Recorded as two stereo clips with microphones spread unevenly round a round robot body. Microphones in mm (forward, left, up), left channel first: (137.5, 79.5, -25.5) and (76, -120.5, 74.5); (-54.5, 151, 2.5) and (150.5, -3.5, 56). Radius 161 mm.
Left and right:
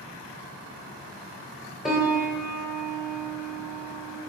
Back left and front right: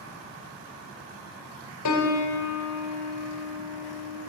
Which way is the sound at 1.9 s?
160° left.